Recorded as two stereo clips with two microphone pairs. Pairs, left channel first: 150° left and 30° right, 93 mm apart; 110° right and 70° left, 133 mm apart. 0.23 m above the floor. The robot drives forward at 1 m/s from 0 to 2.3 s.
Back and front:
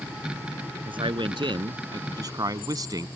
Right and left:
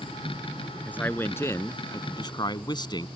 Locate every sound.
0.9 s a man speaking: 30° right; by 3.1 s 60° right